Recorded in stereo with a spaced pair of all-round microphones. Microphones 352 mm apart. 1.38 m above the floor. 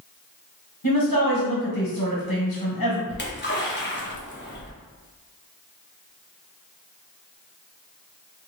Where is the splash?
30° left (ahead or behind), 0.6 m.